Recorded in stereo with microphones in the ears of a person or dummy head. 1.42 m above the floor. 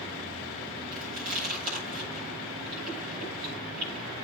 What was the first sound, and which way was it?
Chewing, 50° right (ahead or behind).